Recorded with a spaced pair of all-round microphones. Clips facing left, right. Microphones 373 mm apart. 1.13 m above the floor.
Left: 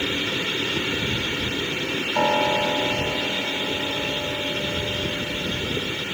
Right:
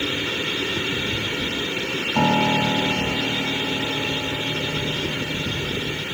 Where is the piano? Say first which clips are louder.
Right 3 dB; 50° right (ahead or behind).